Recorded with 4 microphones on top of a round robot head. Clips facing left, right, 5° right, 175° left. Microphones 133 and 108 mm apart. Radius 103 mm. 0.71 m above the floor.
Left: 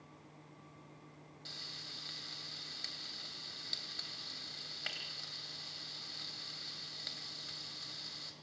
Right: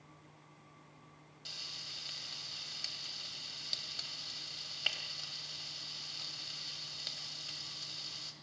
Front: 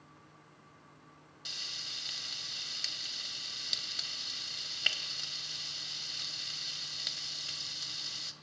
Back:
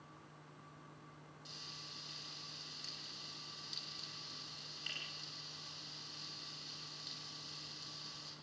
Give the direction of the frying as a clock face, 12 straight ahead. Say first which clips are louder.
Left 2 dB, front 3 dB; 12 o'clock.